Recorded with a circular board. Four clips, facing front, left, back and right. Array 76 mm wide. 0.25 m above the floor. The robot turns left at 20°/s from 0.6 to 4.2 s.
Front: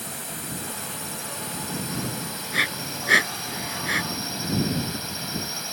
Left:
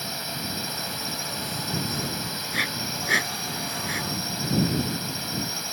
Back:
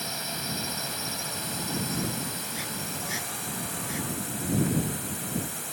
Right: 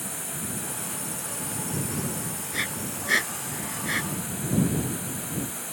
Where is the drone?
120° left; by 5.7 s 50° left.